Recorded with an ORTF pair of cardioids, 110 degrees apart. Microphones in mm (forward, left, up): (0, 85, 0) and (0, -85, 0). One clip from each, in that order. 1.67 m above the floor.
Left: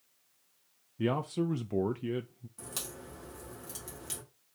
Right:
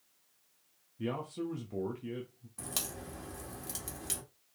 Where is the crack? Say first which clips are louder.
Right 3 dB; 30° right, 2 m.